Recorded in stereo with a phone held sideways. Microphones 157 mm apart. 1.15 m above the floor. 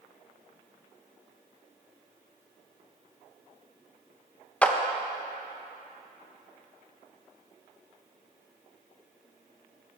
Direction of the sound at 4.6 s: 10° left (ahead or behind).